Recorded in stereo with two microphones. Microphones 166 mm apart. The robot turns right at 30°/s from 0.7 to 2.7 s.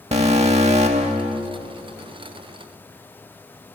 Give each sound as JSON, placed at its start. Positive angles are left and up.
{"t": 0.1, "sound": "an alarm", "side_deg": -40, "distance_m": 0.8}